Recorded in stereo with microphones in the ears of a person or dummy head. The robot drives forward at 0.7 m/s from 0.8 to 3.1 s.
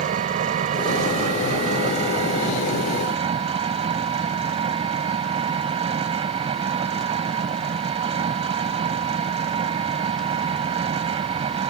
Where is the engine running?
45° right (ahead or behind); by 11.7 s 30° right (ahead or behind).